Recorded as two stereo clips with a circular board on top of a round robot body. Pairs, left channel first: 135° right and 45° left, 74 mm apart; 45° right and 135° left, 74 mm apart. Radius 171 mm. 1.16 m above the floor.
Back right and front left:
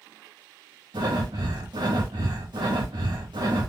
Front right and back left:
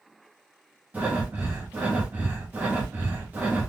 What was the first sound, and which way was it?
Breathing, 65° left.